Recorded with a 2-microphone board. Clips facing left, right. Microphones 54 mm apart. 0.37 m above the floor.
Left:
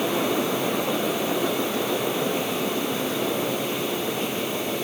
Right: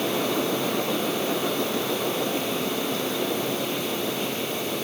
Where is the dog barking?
I don't hear a dog barking.